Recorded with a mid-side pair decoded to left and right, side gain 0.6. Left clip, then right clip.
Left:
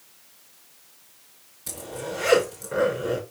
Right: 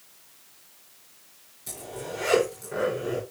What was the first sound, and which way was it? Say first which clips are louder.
A zipper: left 3 dB; 30° left.